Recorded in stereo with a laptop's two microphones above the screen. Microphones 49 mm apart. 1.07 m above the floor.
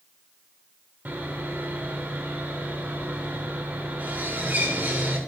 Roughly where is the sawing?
Right.